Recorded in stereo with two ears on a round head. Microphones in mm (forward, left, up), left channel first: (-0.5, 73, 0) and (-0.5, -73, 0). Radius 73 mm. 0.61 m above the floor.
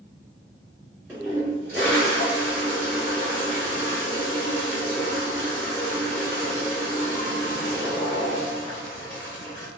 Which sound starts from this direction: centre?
A toilet flushing, at 1.1 s.